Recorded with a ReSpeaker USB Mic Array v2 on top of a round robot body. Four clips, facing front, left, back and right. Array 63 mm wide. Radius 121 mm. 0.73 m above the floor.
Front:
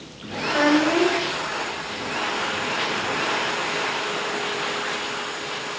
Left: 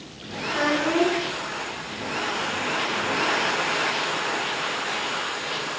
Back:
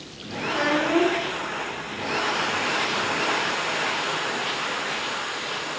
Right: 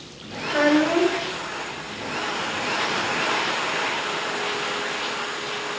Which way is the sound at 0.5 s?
65° right.